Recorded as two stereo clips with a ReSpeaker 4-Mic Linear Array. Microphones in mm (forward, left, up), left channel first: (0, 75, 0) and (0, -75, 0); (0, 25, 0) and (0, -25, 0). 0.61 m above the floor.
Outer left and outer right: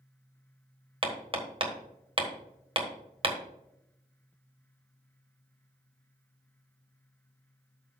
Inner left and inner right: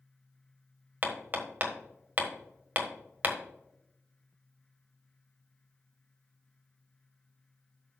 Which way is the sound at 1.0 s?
35° right (ahead or behind).